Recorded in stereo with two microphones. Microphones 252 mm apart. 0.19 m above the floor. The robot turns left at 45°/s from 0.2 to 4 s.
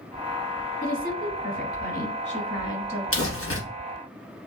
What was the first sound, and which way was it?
A woman speaking, 125° left.